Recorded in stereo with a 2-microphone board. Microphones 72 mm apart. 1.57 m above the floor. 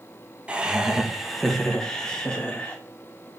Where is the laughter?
15° right (ahead or behind), 1.3 m; by 2.8 s 20° left (ahead or behind), 2 m.